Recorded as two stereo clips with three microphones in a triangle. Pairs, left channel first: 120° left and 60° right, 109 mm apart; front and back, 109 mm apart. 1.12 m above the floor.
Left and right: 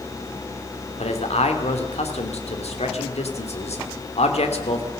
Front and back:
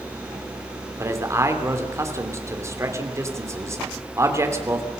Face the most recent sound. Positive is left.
turn(degrees=120)